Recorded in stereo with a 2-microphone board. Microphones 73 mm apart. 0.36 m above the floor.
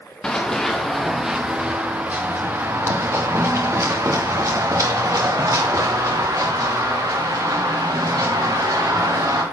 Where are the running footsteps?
10° left (ahead or behind), 1.6 m; by 9.4 s 70° right (ahead or behind), 5 m.